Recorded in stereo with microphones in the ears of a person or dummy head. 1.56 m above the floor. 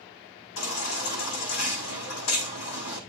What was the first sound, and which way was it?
A baby crying, 75° left (ahead or behind).